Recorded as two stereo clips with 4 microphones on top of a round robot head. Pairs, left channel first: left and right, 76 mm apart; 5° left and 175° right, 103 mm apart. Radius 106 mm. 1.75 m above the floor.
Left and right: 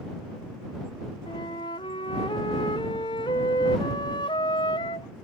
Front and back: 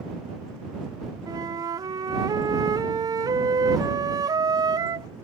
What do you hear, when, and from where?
1.3 s a flute: 130° left